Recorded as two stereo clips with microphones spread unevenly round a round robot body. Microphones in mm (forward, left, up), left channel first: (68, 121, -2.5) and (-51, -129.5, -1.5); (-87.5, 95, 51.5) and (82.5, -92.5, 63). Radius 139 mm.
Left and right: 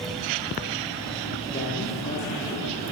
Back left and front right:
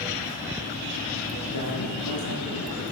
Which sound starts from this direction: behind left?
A man speaking, at 1.5 s.